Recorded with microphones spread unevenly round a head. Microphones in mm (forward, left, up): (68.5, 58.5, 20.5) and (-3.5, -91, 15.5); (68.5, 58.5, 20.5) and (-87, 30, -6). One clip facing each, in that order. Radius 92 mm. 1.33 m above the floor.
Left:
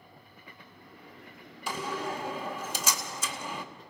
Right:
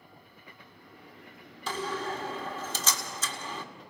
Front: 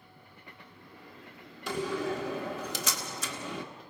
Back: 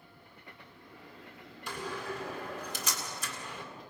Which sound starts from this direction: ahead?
A door slam, at 1.7 s.